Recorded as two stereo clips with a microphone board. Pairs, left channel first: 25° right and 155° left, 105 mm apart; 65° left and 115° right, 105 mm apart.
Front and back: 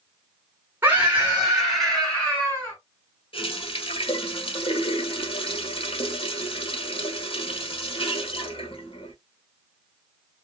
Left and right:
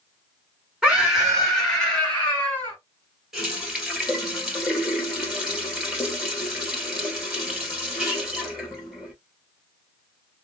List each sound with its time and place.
0.8 s a scream: straight behind, 1.5 m; by 2.8 s 20° left, 1.7 m
3.3 s a running tap: 25° right, 1.4 m